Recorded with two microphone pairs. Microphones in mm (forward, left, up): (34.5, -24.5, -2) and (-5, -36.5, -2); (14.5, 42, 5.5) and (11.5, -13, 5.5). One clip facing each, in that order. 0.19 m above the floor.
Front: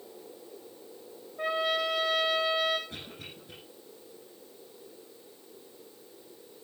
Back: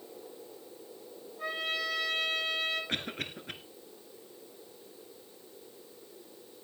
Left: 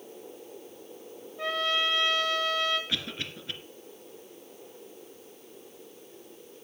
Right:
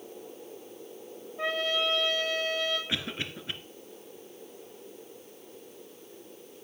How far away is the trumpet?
About 7 m.